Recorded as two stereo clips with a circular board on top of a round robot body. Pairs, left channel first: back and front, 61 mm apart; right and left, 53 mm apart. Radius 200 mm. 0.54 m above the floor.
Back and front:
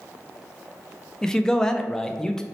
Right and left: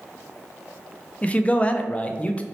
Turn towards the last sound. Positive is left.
turn(degrees=-115)